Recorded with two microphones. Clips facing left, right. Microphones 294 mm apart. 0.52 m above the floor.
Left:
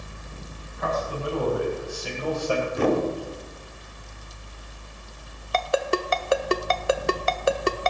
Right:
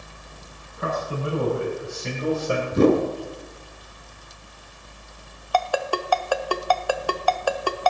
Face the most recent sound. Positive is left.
turn(degrees=25)  # may be behind; listen again after turning